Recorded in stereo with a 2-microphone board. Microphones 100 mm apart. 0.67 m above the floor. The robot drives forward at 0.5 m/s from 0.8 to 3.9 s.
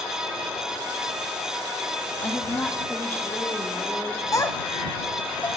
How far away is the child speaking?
About 0.7 m.